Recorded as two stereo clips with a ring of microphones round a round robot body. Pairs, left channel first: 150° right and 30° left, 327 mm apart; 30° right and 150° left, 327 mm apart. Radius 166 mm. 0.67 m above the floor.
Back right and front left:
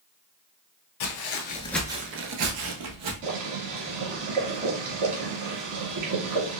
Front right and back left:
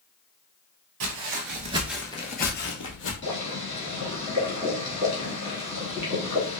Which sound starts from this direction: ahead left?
Boiling, at 3.2 s.